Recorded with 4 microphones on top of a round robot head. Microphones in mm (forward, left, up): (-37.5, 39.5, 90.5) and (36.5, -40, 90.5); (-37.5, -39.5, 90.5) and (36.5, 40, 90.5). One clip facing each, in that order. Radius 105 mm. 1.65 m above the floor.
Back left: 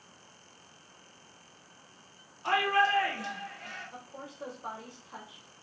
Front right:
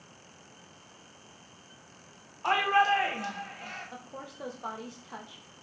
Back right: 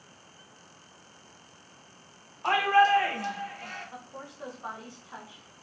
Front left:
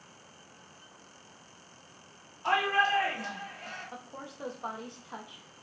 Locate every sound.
2.4 s a shout: 90° right, 1.3 m
3.9 s a woman speaking: 25° right, 1.9 m